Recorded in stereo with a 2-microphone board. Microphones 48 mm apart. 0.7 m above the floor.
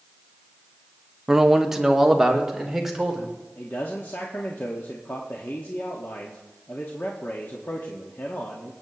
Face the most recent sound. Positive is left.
turn(degrees=50)  # may be behind; listen again after turning